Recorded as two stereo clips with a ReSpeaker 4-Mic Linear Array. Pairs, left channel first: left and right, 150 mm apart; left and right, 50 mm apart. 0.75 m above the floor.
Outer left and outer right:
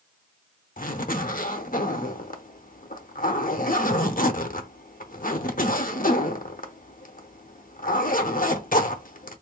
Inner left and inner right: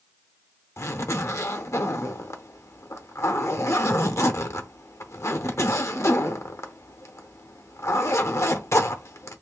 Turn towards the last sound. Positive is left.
turn(degrees=70)  # may be behind; listen again after turning